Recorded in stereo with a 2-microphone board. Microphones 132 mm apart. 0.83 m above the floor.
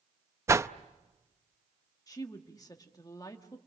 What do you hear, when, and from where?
0.5 s a whoosh: 20° right (ahead or behind), 0.5 m
2.1 s a woman speaking: 30° left (ahead or behind), 1.6 m